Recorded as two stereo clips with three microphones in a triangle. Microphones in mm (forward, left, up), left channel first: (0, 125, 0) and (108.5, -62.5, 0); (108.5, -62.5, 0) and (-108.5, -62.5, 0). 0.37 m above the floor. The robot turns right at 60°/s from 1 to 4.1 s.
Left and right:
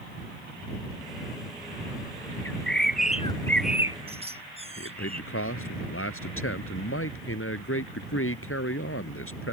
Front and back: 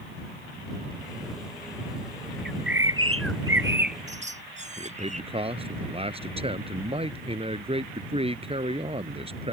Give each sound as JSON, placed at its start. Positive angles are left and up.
{"t": 2.5, "sound": "a bird", "azimuth_deg": 140}
{"t": 4.8, "sound": "a man speaking", "azimuth_deg": 115}